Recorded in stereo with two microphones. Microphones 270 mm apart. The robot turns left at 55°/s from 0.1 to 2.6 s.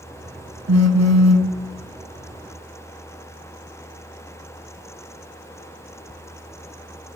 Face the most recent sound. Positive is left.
turn(degrees=-175)